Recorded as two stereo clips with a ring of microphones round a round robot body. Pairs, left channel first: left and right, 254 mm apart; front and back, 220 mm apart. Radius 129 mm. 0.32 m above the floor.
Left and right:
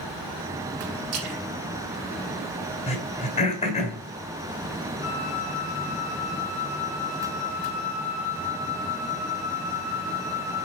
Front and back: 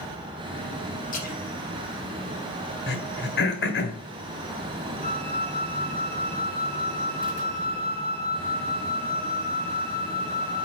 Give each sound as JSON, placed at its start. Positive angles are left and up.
{"t": 1.1, "sound": "a splash", "azimuth_deg": -60, "distance_m": 3.5}
{"t": 2.9, "sound": "throat clearing", "azimuth_deg": 25, "distance_m": 2.5}
{"t": 5.0, "sound": "a flute", "azimuth_deg": 120, "distance_m": 1.4}